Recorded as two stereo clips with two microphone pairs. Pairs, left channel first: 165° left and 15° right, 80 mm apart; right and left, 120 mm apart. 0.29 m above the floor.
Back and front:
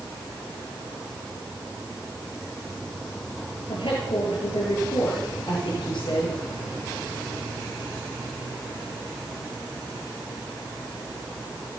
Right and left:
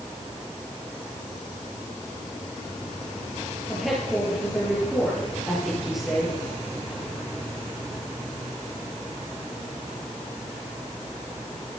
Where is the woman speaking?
Straight behind, 5.5 m.